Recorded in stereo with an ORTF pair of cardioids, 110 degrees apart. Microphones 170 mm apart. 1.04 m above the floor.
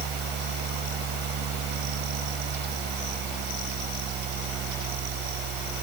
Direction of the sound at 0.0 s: 70° right.